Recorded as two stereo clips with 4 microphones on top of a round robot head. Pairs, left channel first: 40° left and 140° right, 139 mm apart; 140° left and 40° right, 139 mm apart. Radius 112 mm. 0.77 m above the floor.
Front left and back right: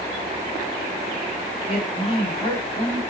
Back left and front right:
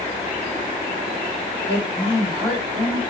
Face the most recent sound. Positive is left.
turn(degrees=90)